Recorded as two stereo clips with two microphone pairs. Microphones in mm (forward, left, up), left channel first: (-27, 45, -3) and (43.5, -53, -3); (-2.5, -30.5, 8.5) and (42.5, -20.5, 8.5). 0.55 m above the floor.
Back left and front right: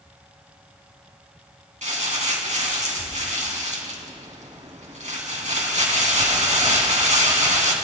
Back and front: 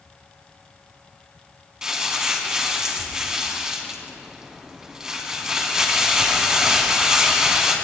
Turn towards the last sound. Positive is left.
turn(degrees=-60)